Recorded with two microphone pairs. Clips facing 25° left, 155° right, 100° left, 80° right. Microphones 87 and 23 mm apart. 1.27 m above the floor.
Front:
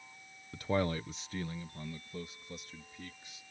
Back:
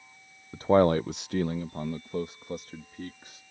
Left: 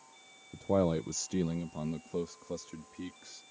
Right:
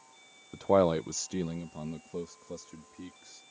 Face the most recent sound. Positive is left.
turn(degrees=165)